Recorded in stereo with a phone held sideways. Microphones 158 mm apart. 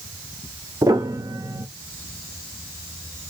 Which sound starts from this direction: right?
A piano, at 0.8 s.